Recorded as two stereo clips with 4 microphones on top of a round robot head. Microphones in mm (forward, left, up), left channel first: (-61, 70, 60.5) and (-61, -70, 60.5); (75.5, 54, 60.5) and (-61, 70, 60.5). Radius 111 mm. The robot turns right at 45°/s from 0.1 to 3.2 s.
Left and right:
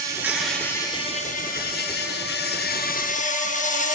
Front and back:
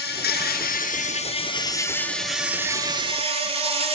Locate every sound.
0.0 s an insect: 15° right, 6.5 m; by 4.0 s 125° left, 6.5 m